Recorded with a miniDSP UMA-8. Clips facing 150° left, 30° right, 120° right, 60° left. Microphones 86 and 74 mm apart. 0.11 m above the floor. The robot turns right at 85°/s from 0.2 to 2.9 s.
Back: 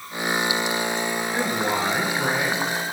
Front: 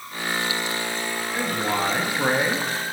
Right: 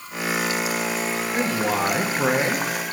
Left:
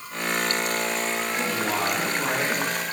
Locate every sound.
1.3 s a man speaking: 175° right, 1.3 m; by 2.7 s 60° right, 1.3 m